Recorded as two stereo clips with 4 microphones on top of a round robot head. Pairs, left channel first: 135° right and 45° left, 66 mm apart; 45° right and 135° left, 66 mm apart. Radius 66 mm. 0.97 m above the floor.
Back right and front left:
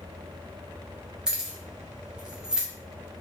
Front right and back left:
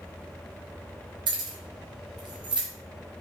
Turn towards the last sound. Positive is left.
turn(degrees=125)